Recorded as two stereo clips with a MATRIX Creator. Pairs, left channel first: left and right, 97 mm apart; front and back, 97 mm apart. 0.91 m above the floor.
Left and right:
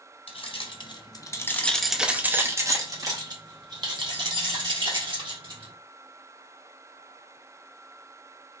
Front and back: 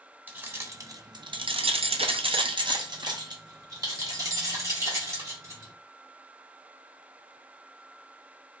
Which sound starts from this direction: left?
Keys jangling, at 0.3 s.